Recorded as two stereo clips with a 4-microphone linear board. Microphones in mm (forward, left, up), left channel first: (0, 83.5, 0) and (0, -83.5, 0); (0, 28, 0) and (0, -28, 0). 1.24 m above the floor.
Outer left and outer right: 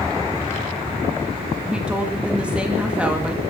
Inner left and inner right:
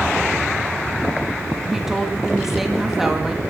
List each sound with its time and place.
1.6 s a woman speaking: 5° right (ahead or behind), 2 m